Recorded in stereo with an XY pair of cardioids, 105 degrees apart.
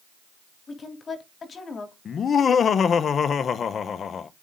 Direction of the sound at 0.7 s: 40° left.